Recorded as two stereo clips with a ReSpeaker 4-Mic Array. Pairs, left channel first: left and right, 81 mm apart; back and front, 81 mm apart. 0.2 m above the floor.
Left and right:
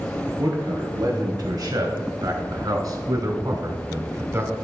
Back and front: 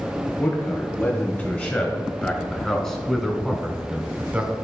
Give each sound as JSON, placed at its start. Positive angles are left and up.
{"t": 0.4, "sound": "a man speaking", "azimuth_deg": -120, "distance_m": 2.5}